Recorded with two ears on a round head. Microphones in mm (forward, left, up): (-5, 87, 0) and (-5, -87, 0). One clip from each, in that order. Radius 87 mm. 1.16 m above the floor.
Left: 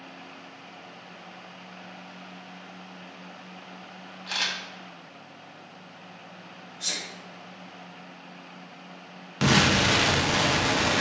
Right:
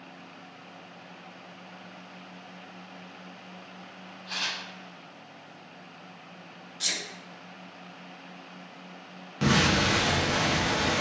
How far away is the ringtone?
No ringtone in this recording.